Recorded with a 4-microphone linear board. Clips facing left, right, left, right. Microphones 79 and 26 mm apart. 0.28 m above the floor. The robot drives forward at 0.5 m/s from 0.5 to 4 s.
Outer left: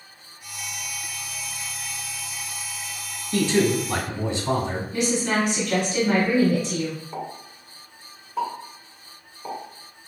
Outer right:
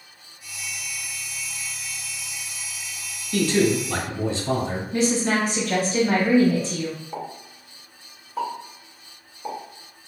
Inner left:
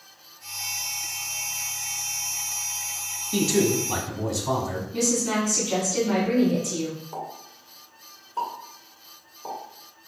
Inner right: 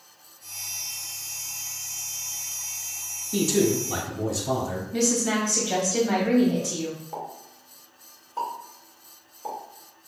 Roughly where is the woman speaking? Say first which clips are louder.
Outer right 2 dB, inner right 1 dB; right.